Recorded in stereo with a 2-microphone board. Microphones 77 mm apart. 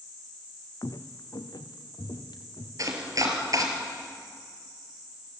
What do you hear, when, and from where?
0.8 s footsteps: 50° left (ahead or behind), 1.0 m; by 2.7 s 75° left (ahead or behind), 2 m
2.8 s chopping: 50° right (ahead or behind), 3 m